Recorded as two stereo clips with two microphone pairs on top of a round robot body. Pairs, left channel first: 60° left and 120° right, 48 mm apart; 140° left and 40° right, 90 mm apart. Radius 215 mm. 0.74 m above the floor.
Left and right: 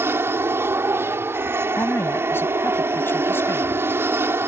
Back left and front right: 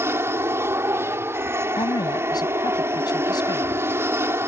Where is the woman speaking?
95° left.